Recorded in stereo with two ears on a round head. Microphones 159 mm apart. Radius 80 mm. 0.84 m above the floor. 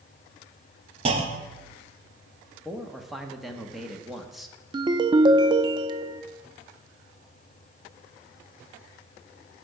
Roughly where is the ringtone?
Right.